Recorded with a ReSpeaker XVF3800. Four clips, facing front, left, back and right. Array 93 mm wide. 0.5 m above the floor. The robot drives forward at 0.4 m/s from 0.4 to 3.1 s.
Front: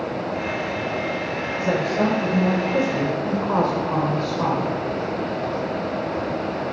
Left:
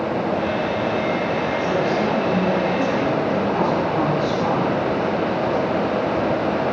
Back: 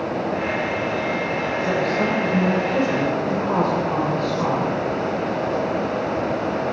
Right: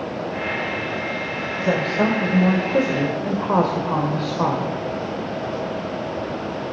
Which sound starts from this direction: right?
A woman speaking, at 1.6 s.